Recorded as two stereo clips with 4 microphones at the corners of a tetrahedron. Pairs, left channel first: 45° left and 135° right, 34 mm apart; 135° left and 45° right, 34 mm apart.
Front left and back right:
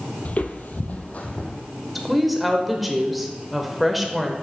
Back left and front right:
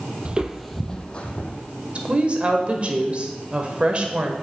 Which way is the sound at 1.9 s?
50° right.